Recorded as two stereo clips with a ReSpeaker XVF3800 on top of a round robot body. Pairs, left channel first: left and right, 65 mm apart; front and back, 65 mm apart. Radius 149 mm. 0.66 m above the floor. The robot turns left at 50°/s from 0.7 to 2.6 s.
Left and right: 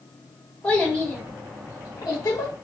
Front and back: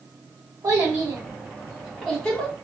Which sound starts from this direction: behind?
A child speaking, at 0.6 s.